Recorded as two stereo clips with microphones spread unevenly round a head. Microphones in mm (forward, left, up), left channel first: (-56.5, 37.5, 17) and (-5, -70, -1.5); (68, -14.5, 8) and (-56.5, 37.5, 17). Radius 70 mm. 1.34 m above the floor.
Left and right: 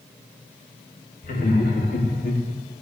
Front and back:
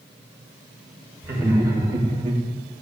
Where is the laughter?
85° left, 4 m; by 2.4 s 100° left, 3.5 m.